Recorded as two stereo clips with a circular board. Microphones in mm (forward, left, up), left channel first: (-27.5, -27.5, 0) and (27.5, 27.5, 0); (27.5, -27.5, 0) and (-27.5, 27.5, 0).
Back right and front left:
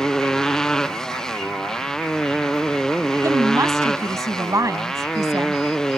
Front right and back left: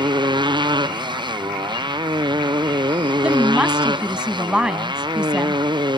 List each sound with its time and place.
0.0 s a motorcycle: 145° left
3.2 s a woman speaking: 65° left